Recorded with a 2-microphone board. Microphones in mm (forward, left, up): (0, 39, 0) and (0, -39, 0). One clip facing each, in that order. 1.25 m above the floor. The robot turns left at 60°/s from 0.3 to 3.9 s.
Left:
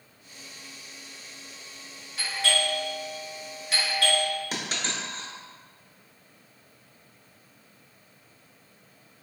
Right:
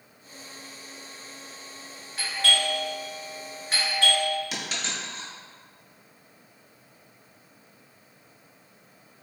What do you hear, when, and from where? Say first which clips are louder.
2.2 s a doorbell: right 1 dB; 40° right (ahead or behind), 1.9 m; by 4.3 s 30° right (ahead or behind), 1.9 m
4.5 s a dropped coin: left 1 dB; 35° left (ahead or behind), 0.8 m